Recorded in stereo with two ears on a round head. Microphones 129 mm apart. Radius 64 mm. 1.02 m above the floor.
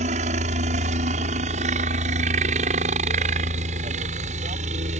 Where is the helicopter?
50° right (ahead or behind).